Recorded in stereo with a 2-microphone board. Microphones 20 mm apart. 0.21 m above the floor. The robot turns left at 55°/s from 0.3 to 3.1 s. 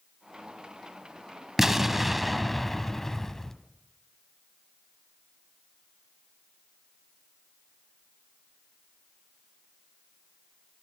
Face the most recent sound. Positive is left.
turn(degrees=20)  # may be behind; listen again after turning